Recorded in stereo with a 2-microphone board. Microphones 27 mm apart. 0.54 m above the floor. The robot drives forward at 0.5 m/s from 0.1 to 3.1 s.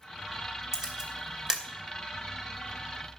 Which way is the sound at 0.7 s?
15° right (ahead or behind).